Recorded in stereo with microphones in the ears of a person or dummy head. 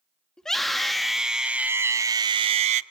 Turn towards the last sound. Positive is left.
turn(degrees=-45)  # may be behind; listen again after turning